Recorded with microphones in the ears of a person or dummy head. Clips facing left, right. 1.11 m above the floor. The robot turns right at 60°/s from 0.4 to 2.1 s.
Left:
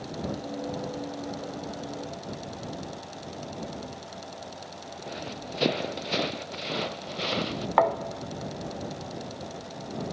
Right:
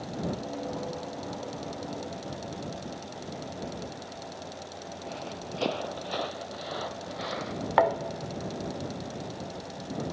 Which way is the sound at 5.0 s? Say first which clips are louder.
Left 2 dB; 20° left (ahead or behind).